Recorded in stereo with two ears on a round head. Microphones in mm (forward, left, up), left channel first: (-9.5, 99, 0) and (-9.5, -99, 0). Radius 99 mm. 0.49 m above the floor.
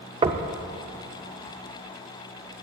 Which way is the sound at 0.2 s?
25° right (ahead or behind).